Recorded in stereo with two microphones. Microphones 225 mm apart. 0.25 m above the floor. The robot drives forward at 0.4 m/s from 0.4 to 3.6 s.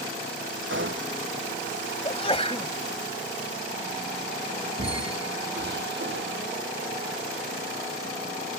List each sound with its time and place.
0.7 s a gunshot: 60° right (ahead or behind)
2.0 s a sneeze: 25° left (ahead or behind)
4.8 s a squeak: 55° right (ahead or behind)